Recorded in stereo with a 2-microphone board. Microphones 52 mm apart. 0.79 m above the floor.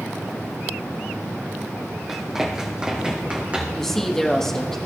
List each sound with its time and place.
2.1 s running footsteps: 5° right (ahead or behind), 2 m; by 3.9 s 25° right (ahead or behind), 3.5 m
3.7 s a woman speaking: 10° left (ahead or behind), 1.1 m